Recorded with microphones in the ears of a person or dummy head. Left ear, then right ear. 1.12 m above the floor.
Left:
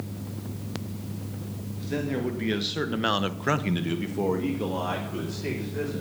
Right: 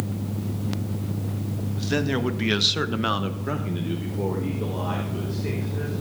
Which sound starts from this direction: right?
A man speaking, at 1.8 s.